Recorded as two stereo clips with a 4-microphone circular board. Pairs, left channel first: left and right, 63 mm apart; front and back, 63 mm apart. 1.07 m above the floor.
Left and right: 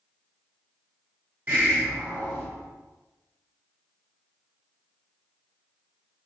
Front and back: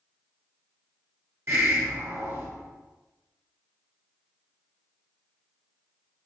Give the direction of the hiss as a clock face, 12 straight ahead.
5 o'clock.